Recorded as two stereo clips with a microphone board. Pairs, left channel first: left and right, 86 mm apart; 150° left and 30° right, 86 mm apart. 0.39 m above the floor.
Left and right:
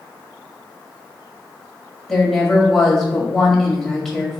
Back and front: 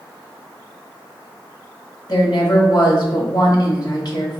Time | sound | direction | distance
2.1 | a woman speaking | 175° left | 1.4 m